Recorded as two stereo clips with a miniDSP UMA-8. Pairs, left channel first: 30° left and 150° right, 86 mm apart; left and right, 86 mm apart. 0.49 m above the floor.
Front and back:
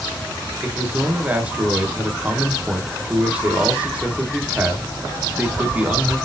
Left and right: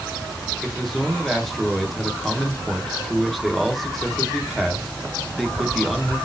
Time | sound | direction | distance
0.6 | a man speaking | 175° left | 0.8 m